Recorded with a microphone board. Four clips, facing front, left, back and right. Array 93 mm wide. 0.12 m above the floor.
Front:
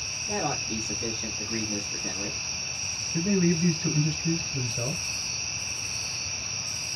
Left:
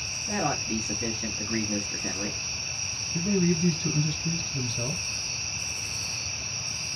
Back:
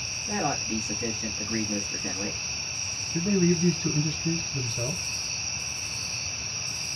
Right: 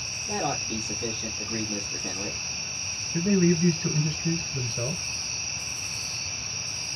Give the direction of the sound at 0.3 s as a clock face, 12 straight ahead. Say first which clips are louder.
Left 1 dB, back 1 dB; 8 o'clock.